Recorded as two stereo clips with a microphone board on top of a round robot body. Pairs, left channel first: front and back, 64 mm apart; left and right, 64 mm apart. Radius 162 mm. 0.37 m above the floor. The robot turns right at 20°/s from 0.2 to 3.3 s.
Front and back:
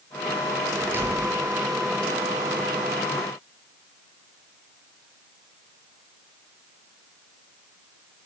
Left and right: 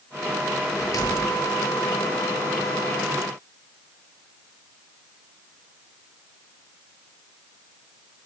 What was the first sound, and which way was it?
A door slam, 120° left.